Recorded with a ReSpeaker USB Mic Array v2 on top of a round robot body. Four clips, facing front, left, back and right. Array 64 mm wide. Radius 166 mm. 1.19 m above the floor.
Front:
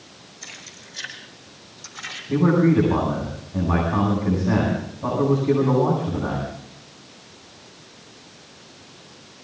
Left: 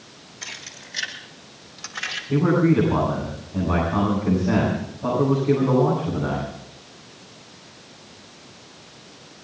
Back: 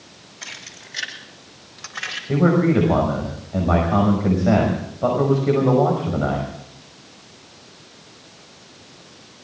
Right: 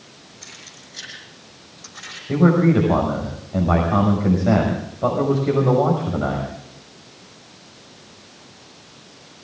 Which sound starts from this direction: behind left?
Keys jangling, at 0.4 s.